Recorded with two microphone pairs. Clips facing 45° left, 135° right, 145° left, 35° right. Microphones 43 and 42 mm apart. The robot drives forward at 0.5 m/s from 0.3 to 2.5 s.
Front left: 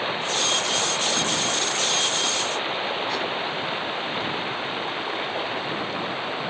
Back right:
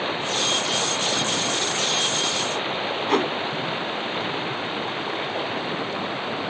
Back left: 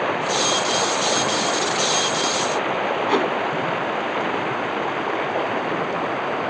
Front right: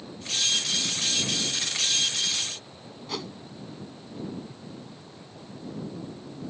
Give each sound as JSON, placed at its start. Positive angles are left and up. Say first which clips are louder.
{"t": 0.0, "sound": "running water", "louder": "even, back left 11 dB", "azimuth_deg": 135}
{"t": 3.1, "sound": "a whoosh", "louder": "back right 5 dB, back left 14 dB", "azimuth_deg": -175}